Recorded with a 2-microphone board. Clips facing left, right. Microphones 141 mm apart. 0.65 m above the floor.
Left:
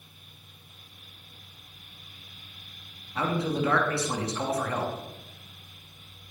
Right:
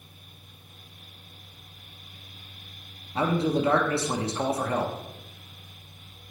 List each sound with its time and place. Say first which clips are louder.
3.1 s a man speaking: right 3 dB; 30° right (ahead or behind), 0.6 m